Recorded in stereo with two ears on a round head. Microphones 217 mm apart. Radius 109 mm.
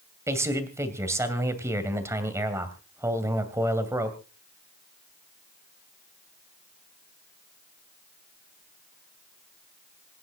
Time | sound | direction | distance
0.3 | a man speaking | 10° right (ahead or behind) | 2.5 m